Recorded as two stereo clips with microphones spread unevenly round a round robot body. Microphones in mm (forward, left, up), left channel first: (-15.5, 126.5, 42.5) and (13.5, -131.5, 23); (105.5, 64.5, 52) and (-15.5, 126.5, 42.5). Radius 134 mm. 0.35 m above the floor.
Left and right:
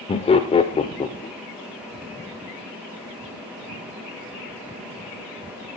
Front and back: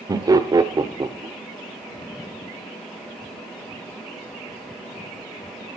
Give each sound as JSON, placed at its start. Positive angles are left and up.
{"t": 0.1, "sound": "laughter", "azimuth_deg": 150, "distance_m": 0.9}